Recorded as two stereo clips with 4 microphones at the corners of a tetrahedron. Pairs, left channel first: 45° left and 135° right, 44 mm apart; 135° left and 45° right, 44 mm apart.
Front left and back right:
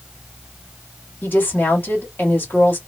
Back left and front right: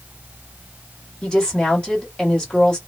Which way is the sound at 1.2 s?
65° left.